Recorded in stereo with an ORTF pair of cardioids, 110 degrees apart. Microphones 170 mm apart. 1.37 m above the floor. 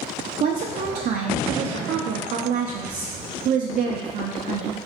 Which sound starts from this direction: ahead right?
A woman speaking, at 0.4 s.